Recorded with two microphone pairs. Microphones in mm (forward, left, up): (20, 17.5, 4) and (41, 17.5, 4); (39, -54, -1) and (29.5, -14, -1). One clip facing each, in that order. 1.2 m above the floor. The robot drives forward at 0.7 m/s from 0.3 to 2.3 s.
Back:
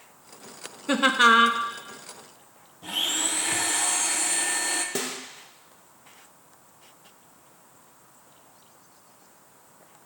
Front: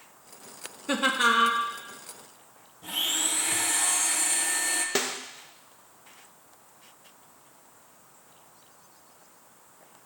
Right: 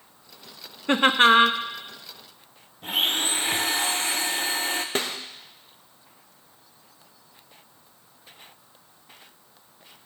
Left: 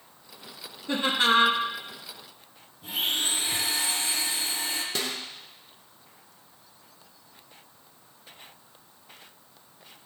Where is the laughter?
100° right, 0.6 m; by 1.6 s 135° right, 0.8 m.